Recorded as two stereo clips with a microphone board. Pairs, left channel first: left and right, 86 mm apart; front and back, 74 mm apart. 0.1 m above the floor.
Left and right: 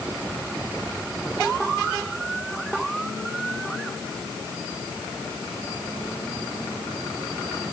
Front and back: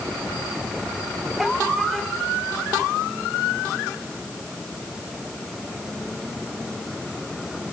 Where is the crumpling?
I don't hear crumpling.